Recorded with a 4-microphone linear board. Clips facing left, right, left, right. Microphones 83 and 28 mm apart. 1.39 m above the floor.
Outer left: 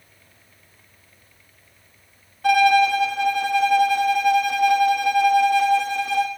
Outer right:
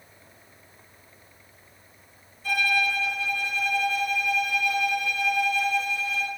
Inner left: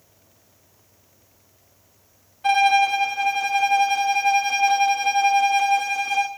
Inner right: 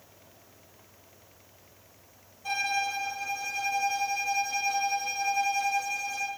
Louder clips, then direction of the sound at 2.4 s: Outer left 11 dB, inner left 12 dB; 85° left.